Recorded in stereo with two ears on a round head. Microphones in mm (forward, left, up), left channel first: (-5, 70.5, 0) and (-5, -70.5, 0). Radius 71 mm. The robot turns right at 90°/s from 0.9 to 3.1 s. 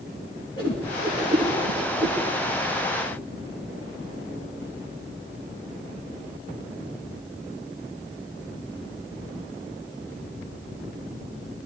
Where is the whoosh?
30° left (ahead or behind), 4 m; by 2.2 s 80° right, 4 m.